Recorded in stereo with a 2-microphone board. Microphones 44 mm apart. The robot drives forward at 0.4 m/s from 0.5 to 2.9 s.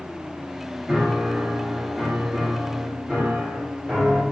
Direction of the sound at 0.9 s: 5° right (ahead or behind).